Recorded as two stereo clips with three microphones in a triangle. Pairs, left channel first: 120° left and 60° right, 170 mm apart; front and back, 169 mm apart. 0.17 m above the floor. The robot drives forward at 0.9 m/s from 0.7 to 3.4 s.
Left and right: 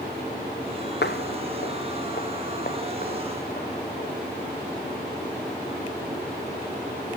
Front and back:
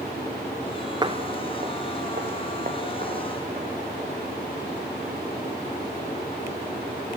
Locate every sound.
1.0 s footsteps: 115° left, 0.6 m; by 4.2 s 145° left, 6 m